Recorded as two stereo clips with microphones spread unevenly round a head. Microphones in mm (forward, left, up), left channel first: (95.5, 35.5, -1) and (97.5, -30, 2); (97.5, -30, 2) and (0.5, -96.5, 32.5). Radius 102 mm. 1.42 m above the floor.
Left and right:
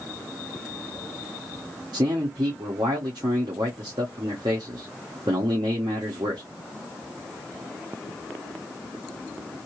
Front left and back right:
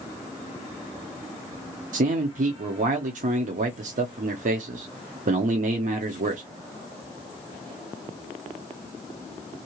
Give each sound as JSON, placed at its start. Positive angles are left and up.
{"t": 1.9, "sound": "a man speaking", "azimuth_deg": -135, "distance_m": 0.6}